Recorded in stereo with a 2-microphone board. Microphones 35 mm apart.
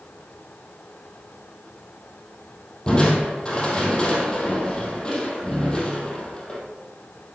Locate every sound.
2.9 s crushing: 25° left (ahead or behind), 3.5 m